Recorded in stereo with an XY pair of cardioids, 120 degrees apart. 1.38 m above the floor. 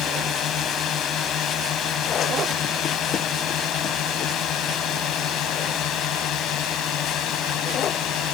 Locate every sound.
0.0 s a drone: 60° left; by 8.3 s 75° left